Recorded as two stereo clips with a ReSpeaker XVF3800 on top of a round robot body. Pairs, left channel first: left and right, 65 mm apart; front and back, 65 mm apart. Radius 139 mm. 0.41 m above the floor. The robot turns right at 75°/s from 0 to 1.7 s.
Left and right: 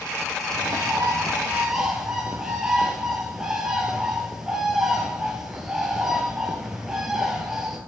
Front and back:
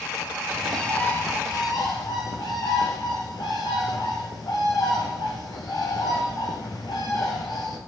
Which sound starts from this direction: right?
A bird, at 0.5 s.